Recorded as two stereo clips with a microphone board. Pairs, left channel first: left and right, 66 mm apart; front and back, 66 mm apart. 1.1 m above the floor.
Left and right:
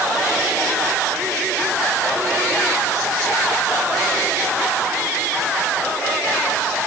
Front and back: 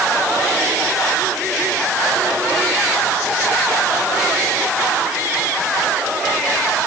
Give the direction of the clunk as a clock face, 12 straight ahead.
I don't hear a clunk.